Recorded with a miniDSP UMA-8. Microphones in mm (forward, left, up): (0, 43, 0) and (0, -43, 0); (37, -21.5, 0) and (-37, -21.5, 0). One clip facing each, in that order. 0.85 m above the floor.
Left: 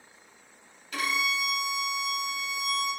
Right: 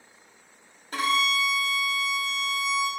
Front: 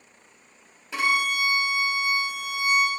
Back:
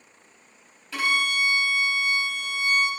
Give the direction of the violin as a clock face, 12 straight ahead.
2 o'clock.